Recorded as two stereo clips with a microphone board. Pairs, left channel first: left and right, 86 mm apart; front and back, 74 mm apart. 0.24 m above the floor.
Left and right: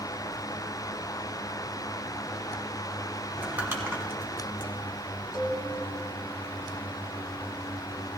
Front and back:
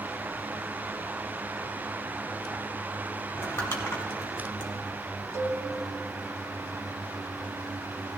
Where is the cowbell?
135° left, 1.8 m.